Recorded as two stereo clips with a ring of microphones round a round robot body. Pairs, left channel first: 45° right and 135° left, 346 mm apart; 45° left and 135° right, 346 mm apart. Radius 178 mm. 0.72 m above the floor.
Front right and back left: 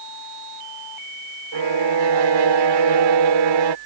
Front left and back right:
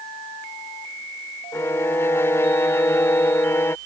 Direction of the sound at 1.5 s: 130° left.